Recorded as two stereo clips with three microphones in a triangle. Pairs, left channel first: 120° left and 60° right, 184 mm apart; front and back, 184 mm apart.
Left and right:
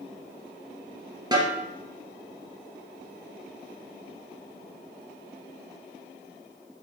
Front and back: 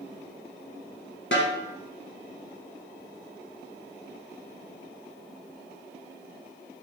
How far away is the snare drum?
About 1.7 m.